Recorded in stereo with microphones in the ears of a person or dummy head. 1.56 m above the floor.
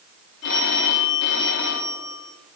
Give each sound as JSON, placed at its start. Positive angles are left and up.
{"t": 0.4, "sound": "a phone ringing", "side_deg": 70, "distance_m": 1.9}